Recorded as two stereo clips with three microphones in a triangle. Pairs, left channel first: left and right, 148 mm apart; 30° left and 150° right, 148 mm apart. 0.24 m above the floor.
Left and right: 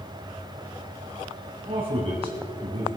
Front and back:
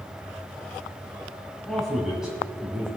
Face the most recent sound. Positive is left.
turn(degrees=-80)